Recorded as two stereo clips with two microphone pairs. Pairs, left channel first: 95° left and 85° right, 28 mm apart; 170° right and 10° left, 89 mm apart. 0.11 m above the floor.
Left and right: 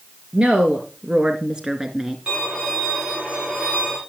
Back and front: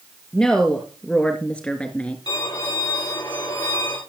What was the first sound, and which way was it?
A woman speaking, 95° right.